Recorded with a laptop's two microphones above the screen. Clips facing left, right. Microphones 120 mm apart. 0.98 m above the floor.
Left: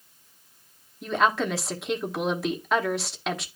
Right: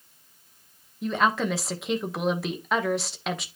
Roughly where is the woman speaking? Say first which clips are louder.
Left 1 dB; centre.